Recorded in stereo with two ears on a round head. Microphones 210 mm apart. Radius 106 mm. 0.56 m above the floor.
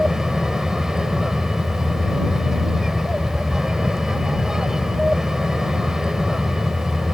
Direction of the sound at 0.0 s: Centre (ahead or behind).